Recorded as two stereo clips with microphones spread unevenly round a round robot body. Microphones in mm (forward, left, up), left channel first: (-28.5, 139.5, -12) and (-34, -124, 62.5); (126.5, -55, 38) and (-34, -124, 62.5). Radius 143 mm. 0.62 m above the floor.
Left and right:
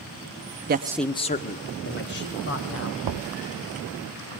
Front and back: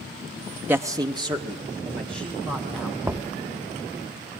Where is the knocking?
75° right, 0.6 m.